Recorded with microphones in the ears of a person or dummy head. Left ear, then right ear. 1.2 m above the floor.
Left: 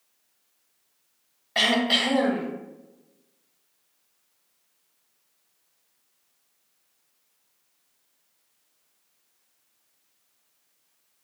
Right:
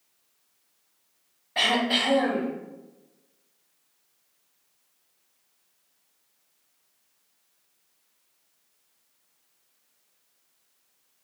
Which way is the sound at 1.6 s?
40° left (ahead or behind).